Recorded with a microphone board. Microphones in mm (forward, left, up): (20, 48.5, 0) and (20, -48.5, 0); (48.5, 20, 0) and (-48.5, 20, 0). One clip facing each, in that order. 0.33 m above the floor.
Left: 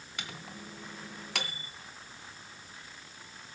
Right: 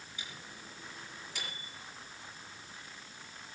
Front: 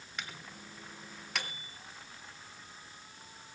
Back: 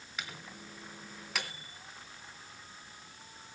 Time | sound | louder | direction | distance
0.2 | a microwave | left 7 dB, back 1 dB | 90° left | 2.5 m